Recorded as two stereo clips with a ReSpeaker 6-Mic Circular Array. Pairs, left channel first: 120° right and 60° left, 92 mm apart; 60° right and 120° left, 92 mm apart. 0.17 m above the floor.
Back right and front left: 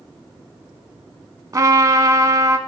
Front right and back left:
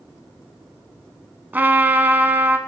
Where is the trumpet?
65° left, 0.6 m.